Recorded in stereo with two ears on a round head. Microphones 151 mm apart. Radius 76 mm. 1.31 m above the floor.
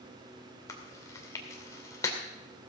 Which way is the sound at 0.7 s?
20° left (ahead or behind).